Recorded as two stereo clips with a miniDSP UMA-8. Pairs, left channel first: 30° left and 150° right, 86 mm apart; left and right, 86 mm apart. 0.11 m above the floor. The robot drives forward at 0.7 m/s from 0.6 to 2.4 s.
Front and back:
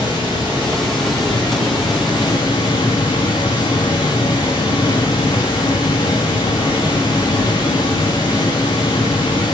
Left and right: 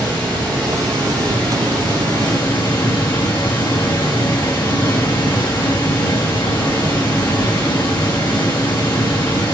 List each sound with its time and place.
0.0 s running water: 15° left, 2.5 m; by 9.6 s 30° left, 1.2 m